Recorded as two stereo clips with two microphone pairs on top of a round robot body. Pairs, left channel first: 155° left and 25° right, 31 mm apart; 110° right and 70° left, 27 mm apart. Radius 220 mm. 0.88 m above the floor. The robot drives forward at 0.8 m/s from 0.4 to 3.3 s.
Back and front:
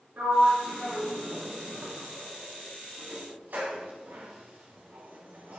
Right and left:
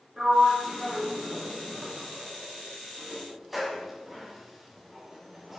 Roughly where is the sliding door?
Ahead.